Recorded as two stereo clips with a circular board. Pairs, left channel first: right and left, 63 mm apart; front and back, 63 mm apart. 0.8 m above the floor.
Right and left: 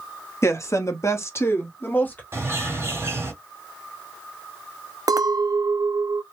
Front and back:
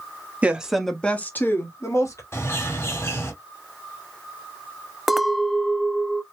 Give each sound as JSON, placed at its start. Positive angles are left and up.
{"t": 0.4, "sound": "a woman speaking", "azimuth_deg": -115, "distance_m": 1.2}
{"t": 2.3, "sound": "a bird", "azimuth_deg": 45, "distance_m": 3.0}
{"t": 5.1, "sound": "a clink", "azimuth_deg": 90, "distance_m": 0.5}